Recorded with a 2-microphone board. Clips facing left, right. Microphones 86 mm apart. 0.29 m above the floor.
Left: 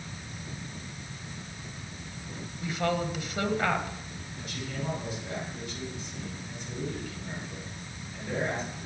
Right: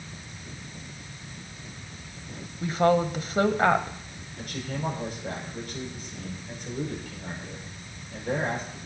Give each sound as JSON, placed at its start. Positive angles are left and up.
{"t": 2.6, "sound": "a woman speaking", "side_deg": -40, "distance_m": 1.1}
{"t": 4.4, "sound": "a man speaking", "side_deg": -50, "distance_m": 6.5}